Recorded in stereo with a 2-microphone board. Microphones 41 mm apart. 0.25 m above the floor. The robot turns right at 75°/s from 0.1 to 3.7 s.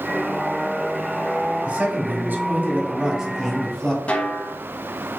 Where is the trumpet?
I don't hear a trumpet.